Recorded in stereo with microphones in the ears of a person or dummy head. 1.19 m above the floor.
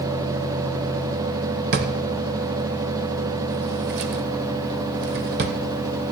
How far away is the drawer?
About 1.4 m.